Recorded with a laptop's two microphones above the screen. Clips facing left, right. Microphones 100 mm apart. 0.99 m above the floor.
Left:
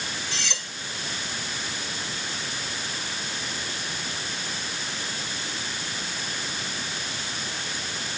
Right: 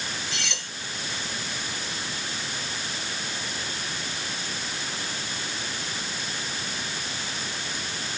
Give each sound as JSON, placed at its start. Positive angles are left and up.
{"t": 0.3, "sound": "cutlery clinking", "side_deg": 30, "distance_m": 5.5}